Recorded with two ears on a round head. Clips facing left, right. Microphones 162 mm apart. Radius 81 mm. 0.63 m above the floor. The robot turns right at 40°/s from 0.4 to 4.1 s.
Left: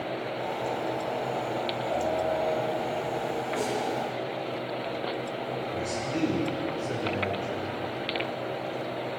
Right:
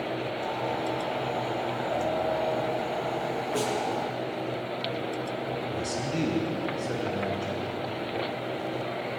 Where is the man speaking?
50° right (ahead or behind), 7.5 m.